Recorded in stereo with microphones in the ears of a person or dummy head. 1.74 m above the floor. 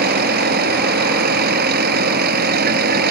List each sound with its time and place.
0.0 s a vehicle: 55° right (ahead or behind)